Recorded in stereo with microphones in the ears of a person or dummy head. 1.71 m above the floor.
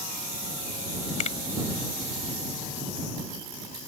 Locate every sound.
1.2 s a finger snap: 40° left (ahead or behind)